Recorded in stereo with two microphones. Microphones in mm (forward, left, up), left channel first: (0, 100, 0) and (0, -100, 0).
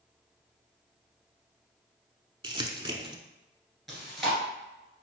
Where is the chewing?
Centre (ahead or behind), 2 m.